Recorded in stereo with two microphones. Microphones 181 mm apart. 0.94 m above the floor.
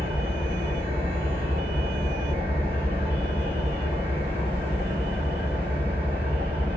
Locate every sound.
0.0 s an engine running: 30° right (ahead or behind), 1.6 m